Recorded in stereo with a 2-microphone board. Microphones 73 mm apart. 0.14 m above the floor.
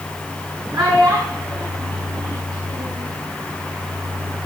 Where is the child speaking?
65° right (ahead or behind), 5 m; by 3.1 s 85° right, 5.5 m.